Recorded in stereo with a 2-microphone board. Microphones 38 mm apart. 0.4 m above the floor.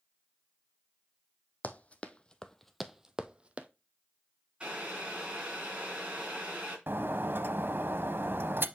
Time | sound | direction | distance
1.6 | running footsteps | 45° left (ahead or behind) | 0.8 m
4.6 | boiling | 30° right (ahead or behind) | 3 m
6.9 | breaking glass | 70° right (ahead or behind) | 0.6 m